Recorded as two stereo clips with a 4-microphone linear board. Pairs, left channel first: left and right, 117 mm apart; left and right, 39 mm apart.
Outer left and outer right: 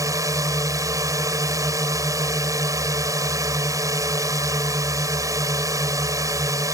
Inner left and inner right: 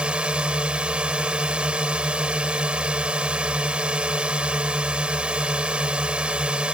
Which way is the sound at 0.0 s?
30° right (ahead or behind).